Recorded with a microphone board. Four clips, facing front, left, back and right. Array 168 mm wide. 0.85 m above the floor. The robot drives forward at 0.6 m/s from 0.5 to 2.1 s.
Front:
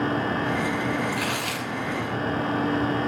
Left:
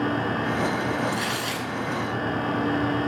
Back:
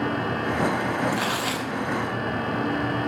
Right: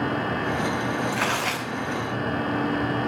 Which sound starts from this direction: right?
Tearing paper, at 1.1 s.